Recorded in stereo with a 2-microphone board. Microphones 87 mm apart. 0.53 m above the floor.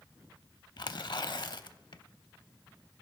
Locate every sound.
0.8 s tearing paper: 60° left (ahead or behind), 0.5 m